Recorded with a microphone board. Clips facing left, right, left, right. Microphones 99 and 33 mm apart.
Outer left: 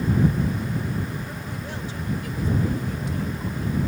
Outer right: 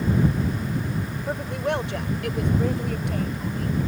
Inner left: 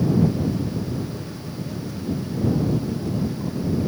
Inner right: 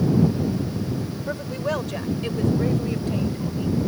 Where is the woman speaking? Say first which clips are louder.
Outer right 8 dB, inner right 7 dB; 85° right; by 3.8 s 65° right (ahead or behind).